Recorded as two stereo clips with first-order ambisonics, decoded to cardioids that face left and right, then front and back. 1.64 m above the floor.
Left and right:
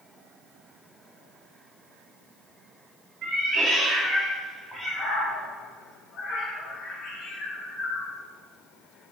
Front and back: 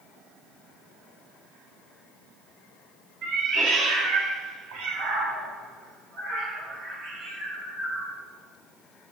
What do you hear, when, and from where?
3.2 s a cat meowing: 140° right, 2 m; by 8.1 s 125° left, 4.5 m